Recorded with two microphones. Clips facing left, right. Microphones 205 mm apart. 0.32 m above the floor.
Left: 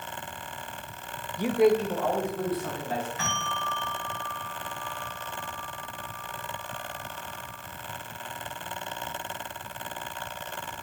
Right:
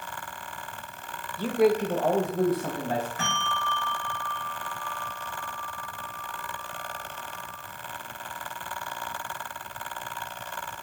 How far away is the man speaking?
About 0.8 m.